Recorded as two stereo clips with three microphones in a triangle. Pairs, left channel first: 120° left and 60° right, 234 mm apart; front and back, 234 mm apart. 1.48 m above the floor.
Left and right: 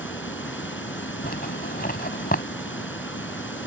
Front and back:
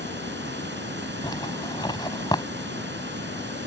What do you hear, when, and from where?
0.0 s running water: 145° left
1.2 s a zipper: 70° left